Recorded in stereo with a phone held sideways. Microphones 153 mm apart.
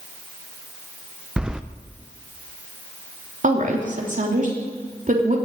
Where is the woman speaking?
55° right (ahead or behind), 3 m.